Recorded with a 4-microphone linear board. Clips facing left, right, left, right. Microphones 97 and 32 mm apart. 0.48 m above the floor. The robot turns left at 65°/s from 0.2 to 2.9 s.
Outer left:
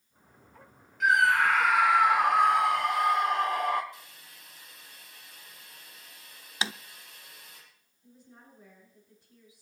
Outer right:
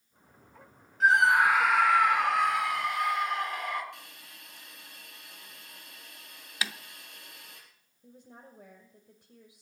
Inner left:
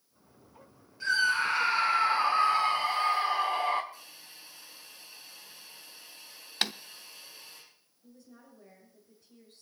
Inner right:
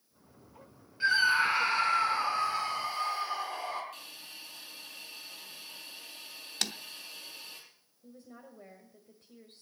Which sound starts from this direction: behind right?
A scream, at 1.0 s.